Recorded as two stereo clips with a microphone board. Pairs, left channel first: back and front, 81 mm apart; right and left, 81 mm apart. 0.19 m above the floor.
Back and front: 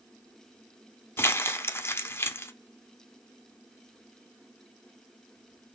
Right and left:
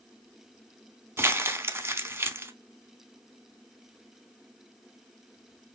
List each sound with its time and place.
1.2 s crumpling: 135° left, 0.5 m